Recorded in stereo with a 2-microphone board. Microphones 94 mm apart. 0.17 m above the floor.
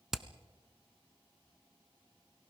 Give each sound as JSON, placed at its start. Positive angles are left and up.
{"t": 0.1, "sound": "hammering", "side_deg": -5, "distance_m": 0.9}